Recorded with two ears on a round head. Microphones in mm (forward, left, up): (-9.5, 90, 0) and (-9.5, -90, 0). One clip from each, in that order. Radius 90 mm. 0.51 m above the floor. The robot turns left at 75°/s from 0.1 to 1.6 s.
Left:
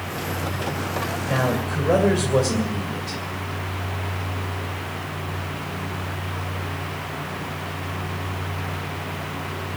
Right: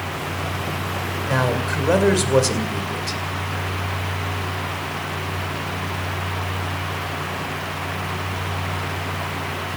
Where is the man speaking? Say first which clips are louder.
Right 3 dB; 60° right (ahead or behind), 2 m; by 3.2 s 50° right (ahead or behind), 2 m.